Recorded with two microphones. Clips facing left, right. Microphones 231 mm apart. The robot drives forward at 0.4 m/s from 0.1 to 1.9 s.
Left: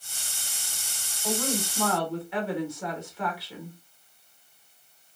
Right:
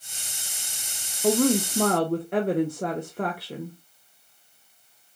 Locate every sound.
1.2 s a woman speaking: 65° right (ahead or behind), 0.7 m; by 3.8 s 50° right (ahead or behind), 0.8 m